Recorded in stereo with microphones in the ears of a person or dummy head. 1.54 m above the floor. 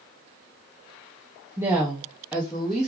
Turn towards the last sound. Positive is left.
turn(degrees=0)  # may be behind; listen again after turning